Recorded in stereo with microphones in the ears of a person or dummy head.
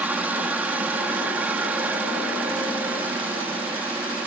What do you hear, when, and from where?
0.0 s a helicopter: 10° right (ahead or behind)